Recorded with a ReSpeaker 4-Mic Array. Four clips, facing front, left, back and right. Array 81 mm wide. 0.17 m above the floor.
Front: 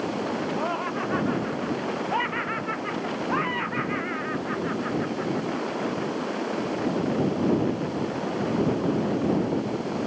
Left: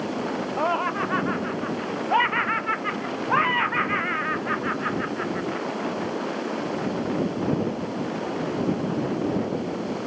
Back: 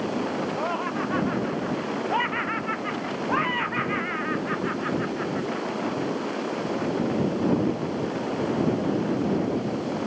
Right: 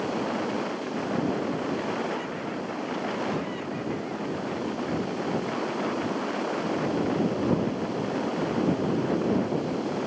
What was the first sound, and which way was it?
Laughter, 90° left.